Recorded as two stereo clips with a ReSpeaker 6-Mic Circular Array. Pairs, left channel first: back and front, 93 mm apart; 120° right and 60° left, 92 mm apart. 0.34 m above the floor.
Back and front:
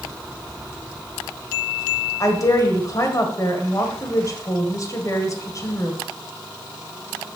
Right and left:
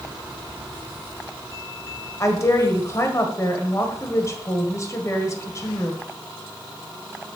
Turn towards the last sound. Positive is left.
turn(degrees=-155)